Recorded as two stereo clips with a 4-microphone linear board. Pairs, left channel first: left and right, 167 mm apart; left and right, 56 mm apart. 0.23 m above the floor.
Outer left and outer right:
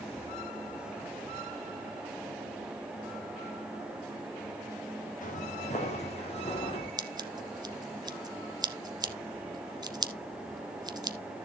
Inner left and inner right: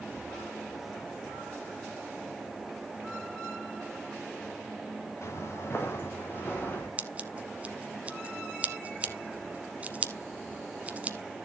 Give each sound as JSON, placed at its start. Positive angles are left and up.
{"t": 5.2, "sound": "footsteps", "side_deg": 50, "distance_m": 2.5}
{"t": 7.0, "sound": "scissors", "side_deg": -25, "distance_m": 0.9}